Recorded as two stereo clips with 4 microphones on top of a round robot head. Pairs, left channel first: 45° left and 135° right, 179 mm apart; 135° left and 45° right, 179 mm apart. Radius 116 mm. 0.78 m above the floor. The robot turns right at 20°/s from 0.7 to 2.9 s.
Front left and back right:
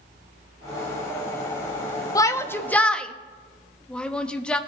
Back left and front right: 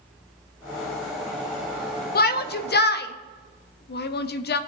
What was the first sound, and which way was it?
A shout, 115° left.